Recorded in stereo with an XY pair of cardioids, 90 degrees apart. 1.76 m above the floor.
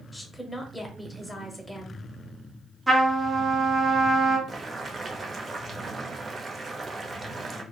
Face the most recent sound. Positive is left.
turn(degrees=-35)